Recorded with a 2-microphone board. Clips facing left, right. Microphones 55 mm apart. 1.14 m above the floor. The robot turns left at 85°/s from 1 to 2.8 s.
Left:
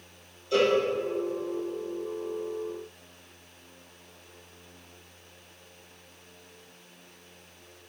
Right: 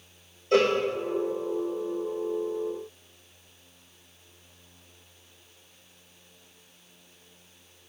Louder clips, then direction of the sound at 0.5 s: Right 1 dB; 50° right (ahead or behind).